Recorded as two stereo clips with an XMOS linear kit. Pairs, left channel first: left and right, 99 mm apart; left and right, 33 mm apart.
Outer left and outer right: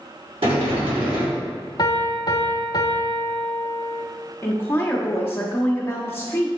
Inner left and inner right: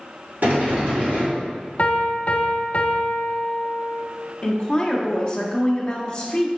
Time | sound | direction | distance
0.4 | a sliding door | 70° right (ahead or behind) | 2.5 m
1.8 | a piano | 45° left (ahead or behind) | 0.7 m
4.4 | a woman speaking | 25° left (ahead or behind) | 0.9 m